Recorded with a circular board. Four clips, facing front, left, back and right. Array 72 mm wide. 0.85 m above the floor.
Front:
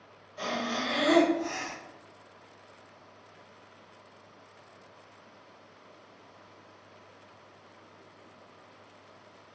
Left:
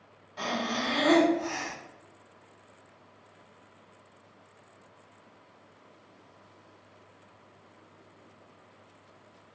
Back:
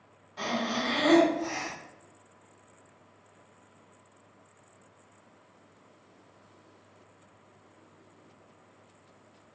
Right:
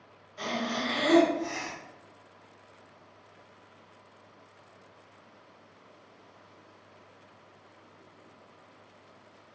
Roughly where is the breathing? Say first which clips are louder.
Left 1 dB, back 1 dB; behind left.